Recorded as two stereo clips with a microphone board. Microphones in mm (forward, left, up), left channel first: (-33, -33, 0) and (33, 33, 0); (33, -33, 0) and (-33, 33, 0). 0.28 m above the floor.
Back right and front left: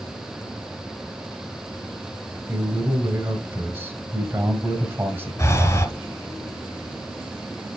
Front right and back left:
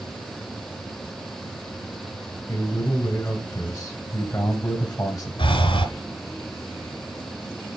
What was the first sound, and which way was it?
A man speaking, 5° right.